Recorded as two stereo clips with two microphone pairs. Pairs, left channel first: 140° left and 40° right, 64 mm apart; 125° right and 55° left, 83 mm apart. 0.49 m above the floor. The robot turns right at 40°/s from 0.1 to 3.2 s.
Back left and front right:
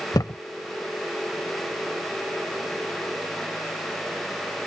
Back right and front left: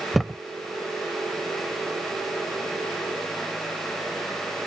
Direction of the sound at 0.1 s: 145° left.